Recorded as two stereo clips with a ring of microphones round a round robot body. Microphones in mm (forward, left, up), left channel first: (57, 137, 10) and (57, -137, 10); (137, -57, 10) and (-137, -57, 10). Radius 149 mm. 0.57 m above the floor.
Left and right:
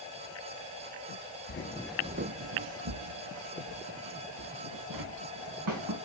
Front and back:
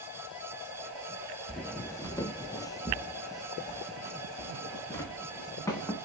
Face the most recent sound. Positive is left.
turn(degrees=-80)